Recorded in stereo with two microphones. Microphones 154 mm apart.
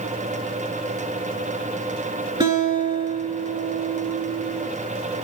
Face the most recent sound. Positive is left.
turn(degrees=-30)  # may be behind; listen again after turning